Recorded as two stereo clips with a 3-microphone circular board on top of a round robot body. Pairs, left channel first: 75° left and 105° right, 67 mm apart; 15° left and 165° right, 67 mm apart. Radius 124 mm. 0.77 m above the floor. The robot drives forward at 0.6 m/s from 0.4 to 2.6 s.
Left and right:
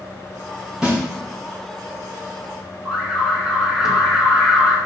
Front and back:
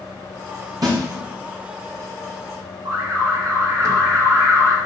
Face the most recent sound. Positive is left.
turn(degrees=175)